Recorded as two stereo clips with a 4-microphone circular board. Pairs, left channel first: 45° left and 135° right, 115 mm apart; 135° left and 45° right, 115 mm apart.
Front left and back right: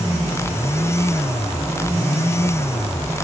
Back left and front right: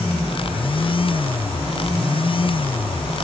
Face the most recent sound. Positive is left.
No sound to turn to.